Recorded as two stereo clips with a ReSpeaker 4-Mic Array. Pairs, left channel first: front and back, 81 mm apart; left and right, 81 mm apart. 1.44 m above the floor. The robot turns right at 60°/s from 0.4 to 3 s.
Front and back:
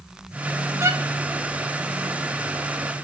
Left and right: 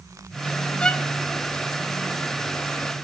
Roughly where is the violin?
Behind.